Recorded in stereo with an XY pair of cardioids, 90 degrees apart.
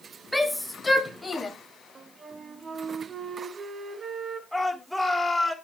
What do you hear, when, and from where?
0.3 s a shout: 5° right, 2 m; by 1.5 s 25° left, 2.5 m
1.9 s a flute: 45° right, 1.6 m
4.5 s a shout: 5° right, 3.5 m